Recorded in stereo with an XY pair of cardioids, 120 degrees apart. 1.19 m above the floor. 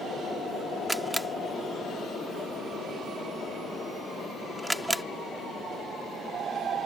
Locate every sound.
0.9 s a camera shutter: 5° right